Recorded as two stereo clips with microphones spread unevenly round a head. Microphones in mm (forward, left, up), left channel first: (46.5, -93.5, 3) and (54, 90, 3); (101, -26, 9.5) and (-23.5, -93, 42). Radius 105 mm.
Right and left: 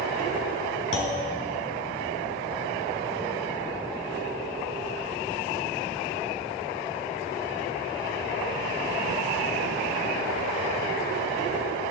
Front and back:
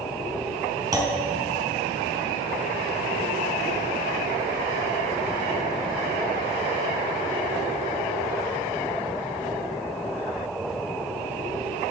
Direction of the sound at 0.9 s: 90° right.